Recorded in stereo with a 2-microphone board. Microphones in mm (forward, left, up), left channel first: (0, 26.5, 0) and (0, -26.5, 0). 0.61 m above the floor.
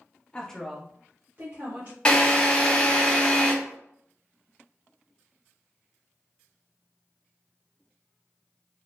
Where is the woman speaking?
20° left (ahead or behind), 0.8 m; by 1.9 s 55° right (ahead or behind), 1.4 m.